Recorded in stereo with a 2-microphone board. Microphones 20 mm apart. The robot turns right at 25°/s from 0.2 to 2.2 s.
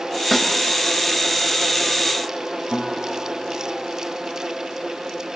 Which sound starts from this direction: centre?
A snare drum, at 0.3 s.